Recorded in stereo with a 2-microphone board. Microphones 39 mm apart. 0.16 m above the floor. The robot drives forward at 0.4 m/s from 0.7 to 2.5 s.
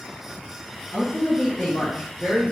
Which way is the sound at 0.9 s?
15° left (ahead or behind).